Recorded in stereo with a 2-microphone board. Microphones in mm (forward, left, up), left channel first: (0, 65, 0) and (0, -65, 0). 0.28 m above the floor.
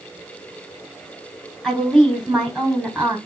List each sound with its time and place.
1.6 s a woman speaking: 5° left (ahead or behind), 3 m